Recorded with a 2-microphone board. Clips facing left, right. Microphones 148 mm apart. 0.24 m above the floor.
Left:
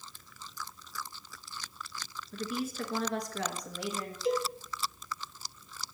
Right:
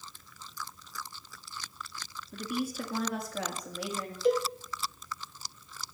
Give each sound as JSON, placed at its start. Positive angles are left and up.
{"t": 2.3, "sound": "a woman speaking", "side_deg": -15, "distance_m": 2.5}
{"t": 4.2, "sound": "a cowbell", "side_deg": -55, "distance_m": 2.0}